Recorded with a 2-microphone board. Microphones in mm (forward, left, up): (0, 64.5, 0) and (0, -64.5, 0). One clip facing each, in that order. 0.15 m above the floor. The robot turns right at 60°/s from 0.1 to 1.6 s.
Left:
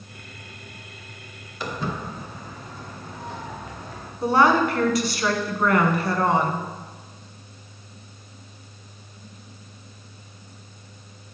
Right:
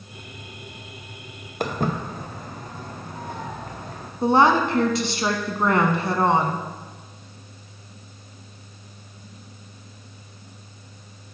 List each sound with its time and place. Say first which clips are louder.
1.6 s footsteps: right 4 dB; 55° right (ahead or behind), 1.5 m; by 4.1 s 50° right (ahead or behind), 3 m
4.2 s a woman speaking: right 1 dB; 25° right (ahead or behind), 1.1 m